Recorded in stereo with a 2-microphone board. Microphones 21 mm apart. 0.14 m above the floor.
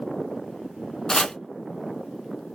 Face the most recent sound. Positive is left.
turn(degrees=35)  # may be behind; listen again after turning